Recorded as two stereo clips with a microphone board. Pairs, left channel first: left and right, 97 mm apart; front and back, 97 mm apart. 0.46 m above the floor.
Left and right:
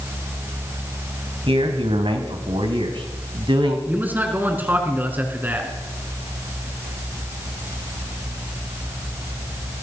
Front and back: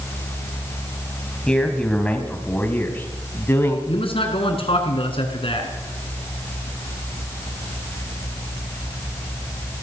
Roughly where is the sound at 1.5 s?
Right.